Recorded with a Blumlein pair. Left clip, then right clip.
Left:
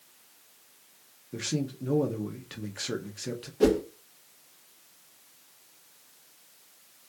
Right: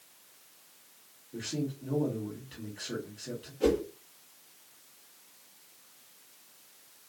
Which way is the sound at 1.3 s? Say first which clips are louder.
Left 3 dB; 50° left.